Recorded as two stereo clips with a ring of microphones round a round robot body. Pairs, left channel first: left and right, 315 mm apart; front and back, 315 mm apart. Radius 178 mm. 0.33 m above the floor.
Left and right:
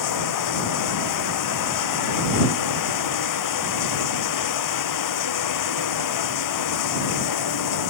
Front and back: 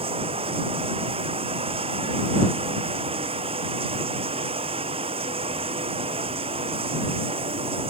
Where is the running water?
105° left.